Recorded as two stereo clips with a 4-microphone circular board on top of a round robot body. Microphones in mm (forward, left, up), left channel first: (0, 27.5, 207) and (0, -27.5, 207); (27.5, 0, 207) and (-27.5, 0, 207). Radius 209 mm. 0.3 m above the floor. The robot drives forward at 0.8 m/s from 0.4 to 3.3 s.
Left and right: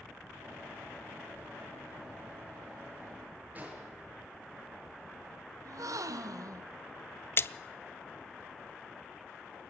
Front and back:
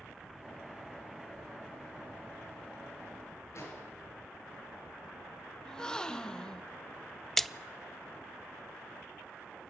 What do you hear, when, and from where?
3.5 s an explosion: 30° right, 7.5 m
5.7 s a gasp: 80° right, 0.8 m
7.4 s a splash: 80° left, 0.7 m